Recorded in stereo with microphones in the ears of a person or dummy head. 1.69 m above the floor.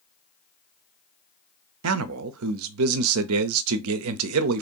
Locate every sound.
1.8 s a man speaking: 85° right, 0.5 m